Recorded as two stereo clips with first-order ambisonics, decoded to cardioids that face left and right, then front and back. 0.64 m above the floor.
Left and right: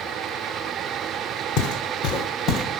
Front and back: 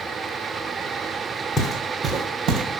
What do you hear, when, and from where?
1.6 s footsteps: 70° left, 1.4 m; by 2.6 s 145° left, 1.5 m